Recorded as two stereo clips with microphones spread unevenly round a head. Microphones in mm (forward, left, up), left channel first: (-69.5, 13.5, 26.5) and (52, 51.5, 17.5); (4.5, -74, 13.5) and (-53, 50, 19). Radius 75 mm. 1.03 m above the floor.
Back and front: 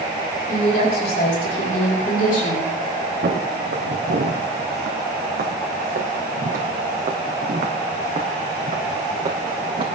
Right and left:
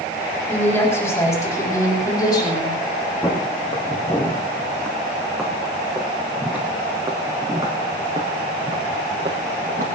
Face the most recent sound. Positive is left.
turn(degrees=70)